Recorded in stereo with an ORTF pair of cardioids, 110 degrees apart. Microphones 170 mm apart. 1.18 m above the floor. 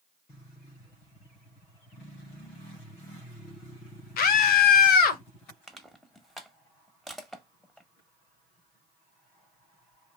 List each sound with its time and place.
4.2 s a scream: 60° left, 1.0 m
5.7 s crushing: straight ahead, 0.9 m